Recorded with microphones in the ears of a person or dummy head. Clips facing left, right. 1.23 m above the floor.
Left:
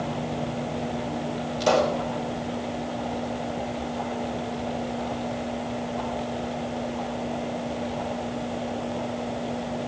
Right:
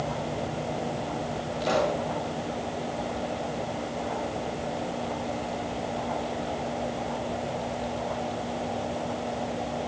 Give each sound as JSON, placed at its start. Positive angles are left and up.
{"t": 1.6, "sound": "a pop", "side_deg": 70, "distance_m": 6.0}